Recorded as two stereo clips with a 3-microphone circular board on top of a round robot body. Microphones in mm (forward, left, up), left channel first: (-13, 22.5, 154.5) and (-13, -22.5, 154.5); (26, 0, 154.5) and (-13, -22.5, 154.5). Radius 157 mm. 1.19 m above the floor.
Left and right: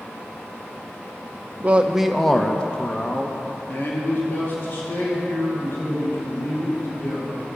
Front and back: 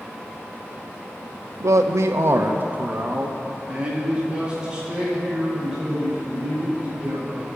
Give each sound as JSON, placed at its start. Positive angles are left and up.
{"t": 1.6, "sound": "a man speaking", "azimuth_deg": -150, "distance_m": 0.7}